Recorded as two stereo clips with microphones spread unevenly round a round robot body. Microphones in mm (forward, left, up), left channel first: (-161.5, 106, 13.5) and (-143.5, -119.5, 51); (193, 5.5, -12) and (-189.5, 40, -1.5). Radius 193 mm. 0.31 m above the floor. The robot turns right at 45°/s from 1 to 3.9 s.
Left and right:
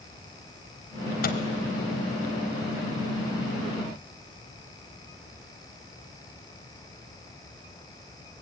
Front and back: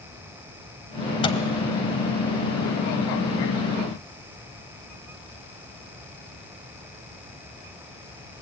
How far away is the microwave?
About 1.0 m.